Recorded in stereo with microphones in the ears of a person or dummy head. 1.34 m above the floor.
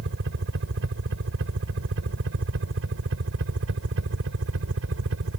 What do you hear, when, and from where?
0.0 s a helicopter: 65° right (ahead or behind); by 5.4 s 70° right (ahead or behind)